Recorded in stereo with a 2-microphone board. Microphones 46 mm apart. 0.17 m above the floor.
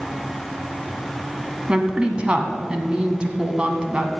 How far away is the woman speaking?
About 1.3 m.